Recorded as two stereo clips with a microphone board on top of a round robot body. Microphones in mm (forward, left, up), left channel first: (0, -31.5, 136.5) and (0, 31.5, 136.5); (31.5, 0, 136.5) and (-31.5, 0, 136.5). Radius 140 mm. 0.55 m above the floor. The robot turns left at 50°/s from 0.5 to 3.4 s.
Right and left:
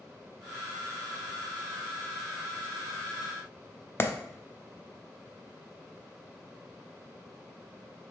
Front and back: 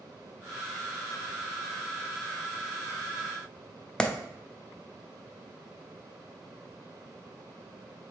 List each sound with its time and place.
4.0 s a clap: 70° right, 0.6 m